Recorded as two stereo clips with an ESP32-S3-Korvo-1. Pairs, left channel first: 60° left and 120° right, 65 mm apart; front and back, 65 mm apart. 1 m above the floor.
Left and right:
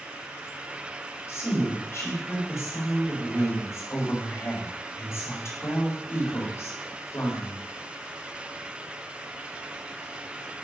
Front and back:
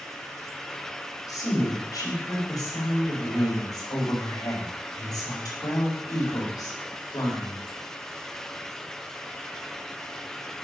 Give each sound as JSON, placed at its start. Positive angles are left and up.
{"t": 1.3, "sound": "a woman speaking", "azimuth_deg": 15, "distance_m": 4.0}